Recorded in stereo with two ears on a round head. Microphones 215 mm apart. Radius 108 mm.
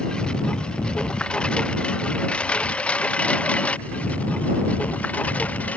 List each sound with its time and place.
0.0 s a lawn mower: 5° left (ahead or behind)